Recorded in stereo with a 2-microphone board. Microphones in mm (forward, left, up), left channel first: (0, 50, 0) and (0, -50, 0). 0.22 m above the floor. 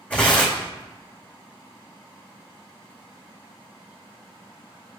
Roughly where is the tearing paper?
Centre.